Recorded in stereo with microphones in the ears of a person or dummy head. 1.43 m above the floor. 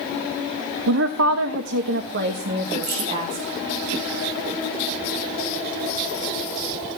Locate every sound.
0.9 s a woman speaking: 60° right (ahead or behind), 1.2 m; by 3.4 s 40° right (ahead or behind), 2.5 m
2.8 s keys jangling: 50° right (ahead or behind), 3 m